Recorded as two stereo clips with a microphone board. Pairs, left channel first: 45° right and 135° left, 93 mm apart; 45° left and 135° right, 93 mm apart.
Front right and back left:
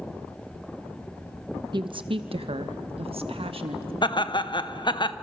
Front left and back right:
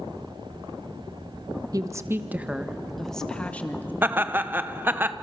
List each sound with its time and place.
1.7 s a woman speaking: 175° left, 1.1 m; by 3.9 s 115° left, 1.8 m
4.0 s laughter: 70° right, 0.8 m